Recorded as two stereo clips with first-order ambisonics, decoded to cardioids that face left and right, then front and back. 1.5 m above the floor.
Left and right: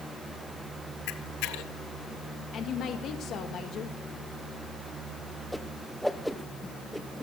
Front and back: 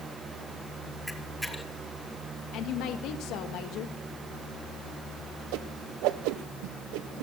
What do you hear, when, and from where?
1.1 s a camera shutter: 90° left, 1.5 m
2.5 s a woman speaking: 35° left, 1.6 m
5.5 s a whoosh: straight behind, 1.1 m